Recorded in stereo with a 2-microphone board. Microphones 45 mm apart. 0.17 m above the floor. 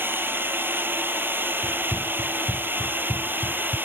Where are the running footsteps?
35° left (ahead or behind); by 3.8 s 40° left (ahead or behind).